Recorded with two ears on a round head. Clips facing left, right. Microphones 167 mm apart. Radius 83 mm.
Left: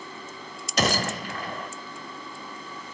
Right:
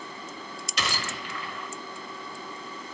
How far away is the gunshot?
About 0.5 m.